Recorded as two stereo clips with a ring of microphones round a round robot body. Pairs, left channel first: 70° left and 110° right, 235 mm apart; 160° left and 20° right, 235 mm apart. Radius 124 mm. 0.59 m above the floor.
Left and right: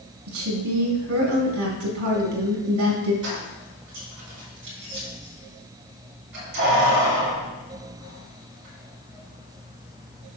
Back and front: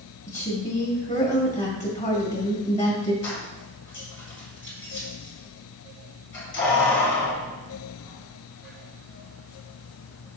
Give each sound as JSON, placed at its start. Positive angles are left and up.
{"t": 0.3, "sound": "a woman speaking", "azimuth_deg": -140, "distance_m": 3.0}
{"t": 3.2, "sound": "keys jangling", "azimuth_deg": -155, "distance_m": 4.0}